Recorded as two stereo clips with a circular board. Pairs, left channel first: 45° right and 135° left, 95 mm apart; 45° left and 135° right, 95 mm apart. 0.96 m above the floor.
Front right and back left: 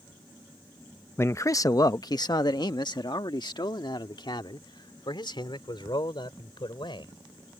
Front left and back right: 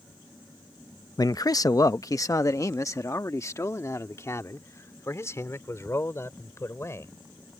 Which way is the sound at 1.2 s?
10° left.